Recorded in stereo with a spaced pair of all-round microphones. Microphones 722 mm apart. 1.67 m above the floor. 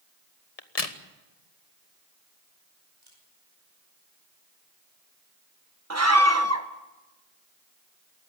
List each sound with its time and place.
0.6 s a crack: 50° left (ahead or behind), 1.5 m
3.0 s a camera shutter: 35° right (ahead or behind), 9 m
5.9 s a scream: 20° right (ahead or behind), 1.5 m